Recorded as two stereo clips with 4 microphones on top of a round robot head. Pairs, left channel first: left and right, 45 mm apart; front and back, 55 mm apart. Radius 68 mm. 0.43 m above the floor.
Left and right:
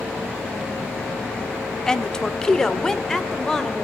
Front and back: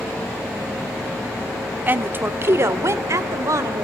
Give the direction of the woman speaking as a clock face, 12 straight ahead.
7 o'clock.